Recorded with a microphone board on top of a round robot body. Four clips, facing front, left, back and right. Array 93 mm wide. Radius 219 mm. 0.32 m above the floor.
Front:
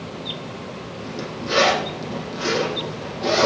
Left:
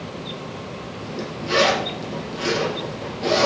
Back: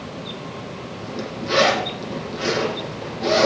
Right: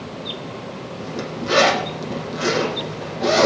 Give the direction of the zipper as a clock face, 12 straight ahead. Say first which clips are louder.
Right 3 dB, back 1 dB; 3 o'clock.